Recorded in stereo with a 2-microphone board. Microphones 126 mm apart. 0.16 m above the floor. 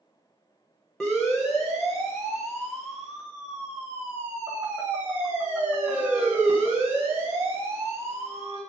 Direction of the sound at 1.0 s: 5° left (ahead or behind).